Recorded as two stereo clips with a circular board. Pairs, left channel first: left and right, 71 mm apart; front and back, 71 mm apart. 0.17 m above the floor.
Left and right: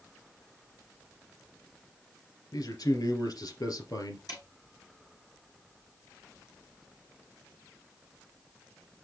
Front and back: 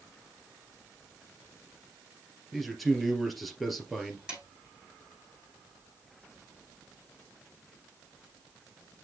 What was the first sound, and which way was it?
A man speaking, 90° left.